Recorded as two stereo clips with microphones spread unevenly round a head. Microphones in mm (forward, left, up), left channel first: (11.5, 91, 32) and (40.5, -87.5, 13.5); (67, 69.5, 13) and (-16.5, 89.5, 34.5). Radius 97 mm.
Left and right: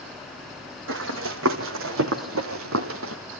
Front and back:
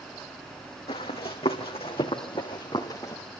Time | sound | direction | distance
0.9 | running footsteps | 70° right | 2.5 m